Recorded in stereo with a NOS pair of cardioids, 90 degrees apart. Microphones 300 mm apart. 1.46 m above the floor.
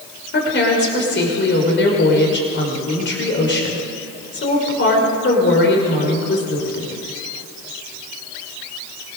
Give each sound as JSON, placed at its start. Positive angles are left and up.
{"t": 0.3, "sound": "a woman speaking", "azimuth_deg": 40, "distance_m": 6.0}